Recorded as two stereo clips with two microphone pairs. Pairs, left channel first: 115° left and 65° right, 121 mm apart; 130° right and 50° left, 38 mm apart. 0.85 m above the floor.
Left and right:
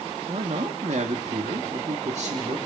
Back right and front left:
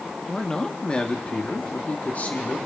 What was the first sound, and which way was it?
A man speaking, 50° right.